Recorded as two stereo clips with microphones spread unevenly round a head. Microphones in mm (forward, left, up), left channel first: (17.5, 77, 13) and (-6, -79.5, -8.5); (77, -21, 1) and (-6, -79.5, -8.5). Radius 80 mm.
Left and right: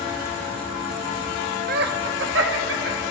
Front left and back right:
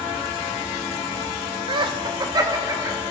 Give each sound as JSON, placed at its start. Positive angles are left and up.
{"t": 1.7, "sound": "laughter", "azimuth_deg": -120, "distance_m": 0.6}